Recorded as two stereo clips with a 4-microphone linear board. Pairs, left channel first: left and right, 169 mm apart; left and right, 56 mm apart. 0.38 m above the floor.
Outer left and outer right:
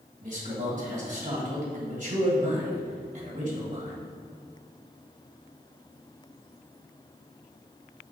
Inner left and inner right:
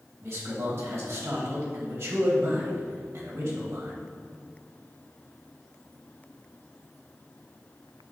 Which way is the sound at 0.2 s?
50° right (ahead or behind).